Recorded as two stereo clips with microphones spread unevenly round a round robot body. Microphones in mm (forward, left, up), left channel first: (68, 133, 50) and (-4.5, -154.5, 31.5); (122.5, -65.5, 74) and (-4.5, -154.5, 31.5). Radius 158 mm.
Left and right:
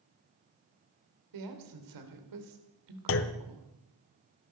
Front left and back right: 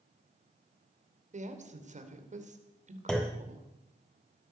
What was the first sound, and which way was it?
A woman speaking, 110° right.